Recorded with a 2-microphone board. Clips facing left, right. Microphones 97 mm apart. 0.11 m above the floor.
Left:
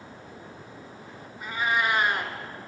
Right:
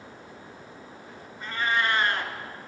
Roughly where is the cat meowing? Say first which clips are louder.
Even; centre.